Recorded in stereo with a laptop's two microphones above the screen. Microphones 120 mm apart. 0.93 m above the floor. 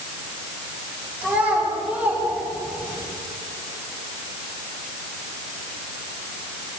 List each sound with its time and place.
1.2 s a child speaking: 10° right (ahead or behind), 6.5 m; by 3.0 s 15° right (ahead or behind), 7.5 m